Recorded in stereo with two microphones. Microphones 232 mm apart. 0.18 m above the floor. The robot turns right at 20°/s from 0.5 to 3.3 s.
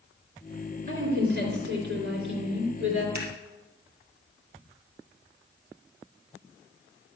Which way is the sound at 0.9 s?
135° right.